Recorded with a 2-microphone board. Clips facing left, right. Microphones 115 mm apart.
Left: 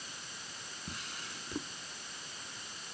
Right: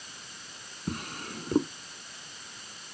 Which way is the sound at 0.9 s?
55° right (ahead or behind).